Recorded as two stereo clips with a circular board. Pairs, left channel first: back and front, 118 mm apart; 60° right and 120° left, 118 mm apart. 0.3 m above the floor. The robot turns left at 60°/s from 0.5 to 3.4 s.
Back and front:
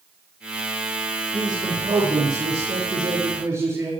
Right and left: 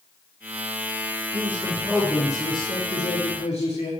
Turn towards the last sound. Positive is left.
turn(degrees=-65)